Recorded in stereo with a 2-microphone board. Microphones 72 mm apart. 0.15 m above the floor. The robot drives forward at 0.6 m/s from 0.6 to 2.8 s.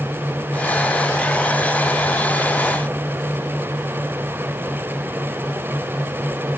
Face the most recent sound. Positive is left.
No sound to turn to.